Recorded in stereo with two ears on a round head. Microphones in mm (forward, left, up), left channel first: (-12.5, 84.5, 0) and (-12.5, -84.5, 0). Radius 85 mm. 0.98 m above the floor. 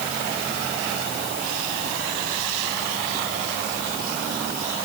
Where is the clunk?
No clunk in this recording.